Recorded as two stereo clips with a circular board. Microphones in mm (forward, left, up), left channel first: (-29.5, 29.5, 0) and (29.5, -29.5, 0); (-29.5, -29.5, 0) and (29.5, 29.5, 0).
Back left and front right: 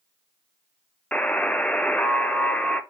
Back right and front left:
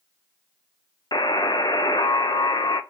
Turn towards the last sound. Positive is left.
turn(degrees=-150)